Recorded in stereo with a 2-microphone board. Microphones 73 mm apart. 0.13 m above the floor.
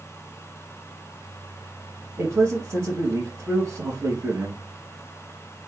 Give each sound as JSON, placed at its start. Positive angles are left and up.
{"t": 2.2, "sound": "a man speaking", "side_deg": -30, "distance_m": 1.9}